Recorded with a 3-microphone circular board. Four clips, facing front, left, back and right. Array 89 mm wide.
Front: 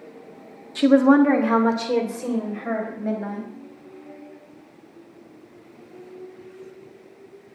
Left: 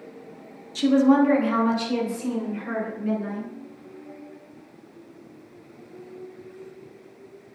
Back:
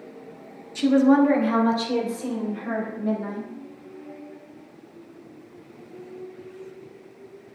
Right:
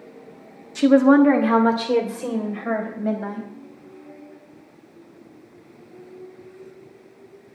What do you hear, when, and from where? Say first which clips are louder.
0.8 s a woman speaking: right 4 dB, front 2 dB; 35° right, 1.5 m; by 3.5 s 65° right, 5.5 m